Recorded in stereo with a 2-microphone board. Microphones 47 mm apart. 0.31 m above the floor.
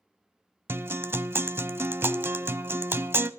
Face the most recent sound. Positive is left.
turn(degrees=-50)  # may be behind; listen again after turning